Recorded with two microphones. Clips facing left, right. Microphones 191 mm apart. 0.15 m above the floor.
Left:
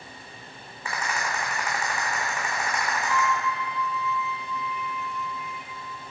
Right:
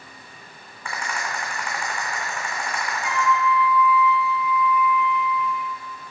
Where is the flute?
10° right (ahead or behind), 1.4 m.